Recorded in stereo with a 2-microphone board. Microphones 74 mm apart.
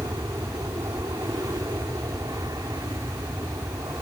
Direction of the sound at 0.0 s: 60° right (ahead or behind).